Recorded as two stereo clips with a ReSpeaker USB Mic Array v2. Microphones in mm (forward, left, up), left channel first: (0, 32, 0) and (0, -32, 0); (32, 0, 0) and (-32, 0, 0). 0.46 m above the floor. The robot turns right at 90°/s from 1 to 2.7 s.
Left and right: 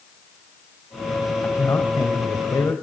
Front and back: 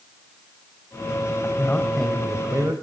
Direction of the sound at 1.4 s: 30° left.